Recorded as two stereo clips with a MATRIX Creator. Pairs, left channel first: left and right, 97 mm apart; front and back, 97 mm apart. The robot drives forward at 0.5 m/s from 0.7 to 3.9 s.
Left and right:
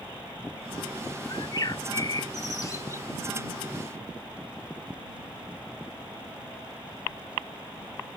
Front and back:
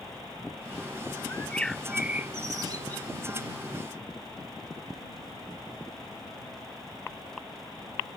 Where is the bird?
55° left; by 3.1 s 145° left.